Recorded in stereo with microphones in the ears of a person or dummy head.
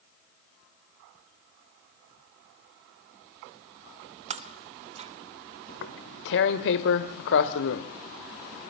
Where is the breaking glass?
35° right (ahead or behind), 1.7 m.